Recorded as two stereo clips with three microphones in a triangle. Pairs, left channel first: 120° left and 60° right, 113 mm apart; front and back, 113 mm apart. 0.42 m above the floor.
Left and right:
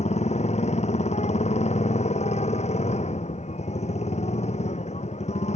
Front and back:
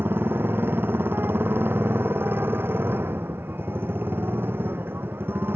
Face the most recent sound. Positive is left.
turn(degrees=110)